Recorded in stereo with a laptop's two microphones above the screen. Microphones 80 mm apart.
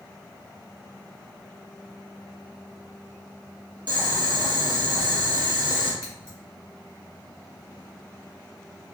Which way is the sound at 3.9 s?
60° right (ahead or behind).